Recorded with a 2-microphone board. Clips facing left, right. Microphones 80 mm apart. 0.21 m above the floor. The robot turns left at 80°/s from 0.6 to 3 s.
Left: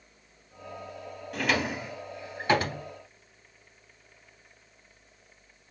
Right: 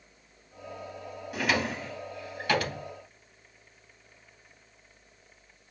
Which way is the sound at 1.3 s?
10° right (ahead or behind).